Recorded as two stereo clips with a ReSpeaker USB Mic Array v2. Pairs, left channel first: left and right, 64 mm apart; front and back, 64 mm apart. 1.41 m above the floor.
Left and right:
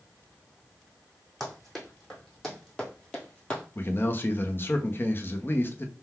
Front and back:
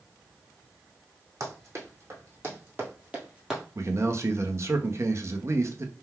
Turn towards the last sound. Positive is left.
turn(degrees=140)